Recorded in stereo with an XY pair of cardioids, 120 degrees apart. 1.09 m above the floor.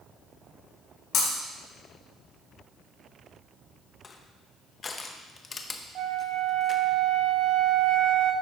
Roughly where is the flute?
Ahead right.